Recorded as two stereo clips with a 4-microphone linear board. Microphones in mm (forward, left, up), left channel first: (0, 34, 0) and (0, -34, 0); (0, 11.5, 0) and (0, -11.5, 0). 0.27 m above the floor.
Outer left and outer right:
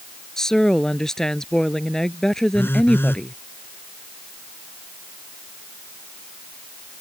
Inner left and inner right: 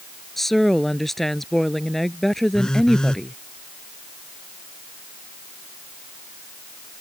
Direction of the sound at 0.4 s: 10° left (ahead or behind).